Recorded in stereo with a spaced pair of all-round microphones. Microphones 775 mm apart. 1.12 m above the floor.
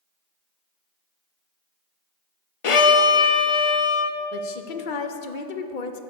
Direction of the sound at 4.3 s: 90° left.